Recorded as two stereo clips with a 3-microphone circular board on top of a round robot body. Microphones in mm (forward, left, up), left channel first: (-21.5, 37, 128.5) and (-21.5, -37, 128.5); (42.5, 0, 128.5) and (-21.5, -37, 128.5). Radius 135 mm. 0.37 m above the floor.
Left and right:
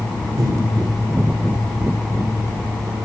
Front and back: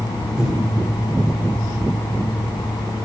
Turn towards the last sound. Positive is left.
turn(degrees=-70)